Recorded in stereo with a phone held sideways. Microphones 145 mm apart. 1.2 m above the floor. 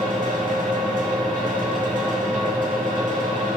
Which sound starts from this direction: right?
A fan, at 0.0 s.